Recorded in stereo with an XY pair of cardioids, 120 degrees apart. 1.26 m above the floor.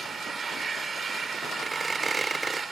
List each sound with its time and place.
0.0 s an engine running: 25° right
1.6 s a squeak: 15° right